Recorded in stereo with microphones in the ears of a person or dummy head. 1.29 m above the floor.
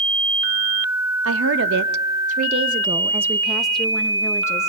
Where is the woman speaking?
75° right (ahead or behind), 2 m; by 4.7 s 15° left (ahead or behind), 3 m.